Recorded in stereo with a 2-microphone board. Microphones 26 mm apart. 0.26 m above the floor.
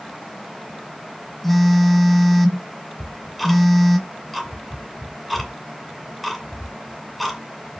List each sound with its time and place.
1.4 s a phone buzzing: 5° left (ahead or behind), 1.2 m
3.0 s ticking: centre (ahead or behind), 2 m